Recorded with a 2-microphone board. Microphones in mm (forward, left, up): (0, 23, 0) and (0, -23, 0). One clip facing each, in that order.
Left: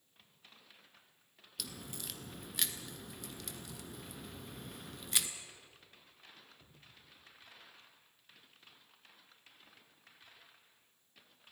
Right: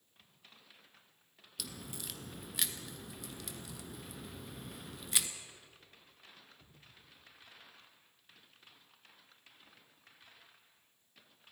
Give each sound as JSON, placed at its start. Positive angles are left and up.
{"t": 1.6, "sound": "a crack", "side_deg": 0, "distance_m": 1.3}